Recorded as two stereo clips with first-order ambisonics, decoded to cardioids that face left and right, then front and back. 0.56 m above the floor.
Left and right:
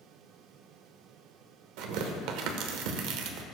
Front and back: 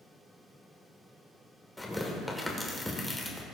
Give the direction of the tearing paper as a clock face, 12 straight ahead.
3 o'clock.